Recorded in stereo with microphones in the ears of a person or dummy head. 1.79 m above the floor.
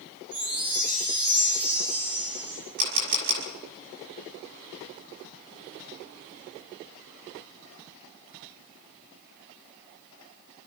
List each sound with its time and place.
0.3 s a chime: 30° right (ahead or behind), 9.5 m
2.8 s a camera shutter: 75° right (ahead or behind), 6 m